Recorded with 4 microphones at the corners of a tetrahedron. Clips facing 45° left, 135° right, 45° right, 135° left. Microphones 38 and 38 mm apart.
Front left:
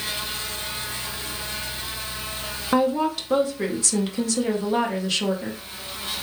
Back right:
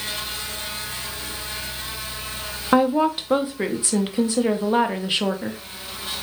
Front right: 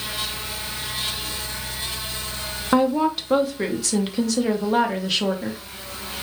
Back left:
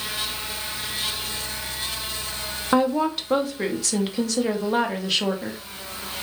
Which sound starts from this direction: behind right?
A woman speaking, at 2.7 s.